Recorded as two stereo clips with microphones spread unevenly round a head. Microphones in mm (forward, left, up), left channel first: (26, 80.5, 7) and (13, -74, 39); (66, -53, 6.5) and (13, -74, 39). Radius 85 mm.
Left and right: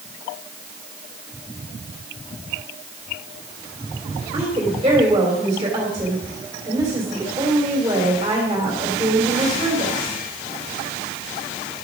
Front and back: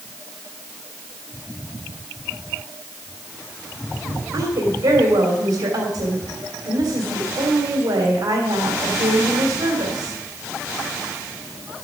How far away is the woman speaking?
About 3 m.